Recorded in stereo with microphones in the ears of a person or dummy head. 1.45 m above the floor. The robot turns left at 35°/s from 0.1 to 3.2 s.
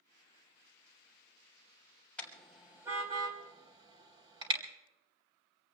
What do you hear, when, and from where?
2.2 s a car horn: 10° left (ahead or behind), 3.5 m; by 4.6 s 25° right (ahead or behind), 3.5 m